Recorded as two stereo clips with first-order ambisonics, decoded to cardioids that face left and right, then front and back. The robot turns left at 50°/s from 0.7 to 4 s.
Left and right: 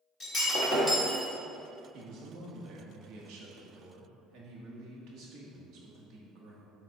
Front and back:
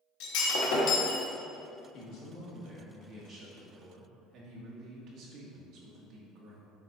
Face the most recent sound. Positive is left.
turn(degrees=-130)